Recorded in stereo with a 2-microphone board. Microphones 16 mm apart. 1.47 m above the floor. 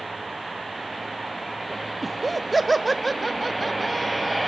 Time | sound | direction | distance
2.0 | laughter | 10° right (ahead or behind) | 0.8 m